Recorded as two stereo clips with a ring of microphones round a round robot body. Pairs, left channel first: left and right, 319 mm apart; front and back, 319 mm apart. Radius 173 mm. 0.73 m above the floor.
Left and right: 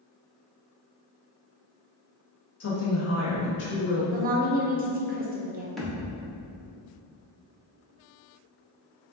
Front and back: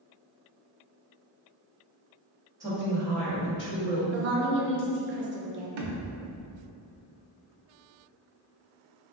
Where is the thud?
Straight behind, 0.6 m.